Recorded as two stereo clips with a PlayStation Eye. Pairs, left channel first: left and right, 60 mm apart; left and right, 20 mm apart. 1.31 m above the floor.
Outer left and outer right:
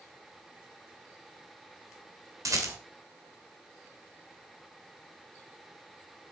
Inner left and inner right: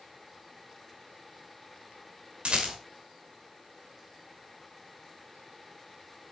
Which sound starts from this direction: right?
A rattle, at 2.5 s.